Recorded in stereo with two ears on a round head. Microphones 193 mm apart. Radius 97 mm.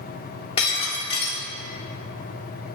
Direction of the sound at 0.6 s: 30° left (ahead or behind).